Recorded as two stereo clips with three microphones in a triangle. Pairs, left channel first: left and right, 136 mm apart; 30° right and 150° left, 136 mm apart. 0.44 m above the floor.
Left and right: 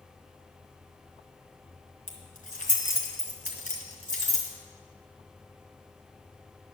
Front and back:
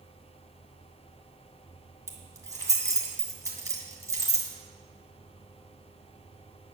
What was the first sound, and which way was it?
Keys jangling, 85° left.